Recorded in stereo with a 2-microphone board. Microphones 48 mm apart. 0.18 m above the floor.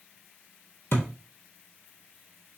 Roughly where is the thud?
Left.